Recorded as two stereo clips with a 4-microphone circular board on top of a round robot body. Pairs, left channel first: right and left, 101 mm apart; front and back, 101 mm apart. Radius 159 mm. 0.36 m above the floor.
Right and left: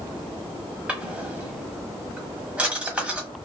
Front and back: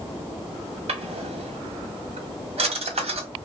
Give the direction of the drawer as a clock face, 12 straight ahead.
6 o'clock.